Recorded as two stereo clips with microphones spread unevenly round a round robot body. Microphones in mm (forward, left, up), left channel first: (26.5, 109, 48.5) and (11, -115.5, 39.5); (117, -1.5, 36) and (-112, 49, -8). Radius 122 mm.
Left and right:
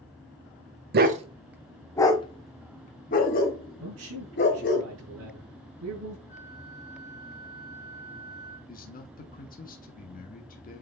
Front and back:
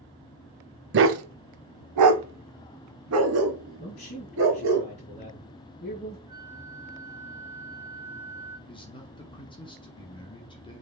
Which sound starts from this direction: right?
A man speaking, at 3.8 s.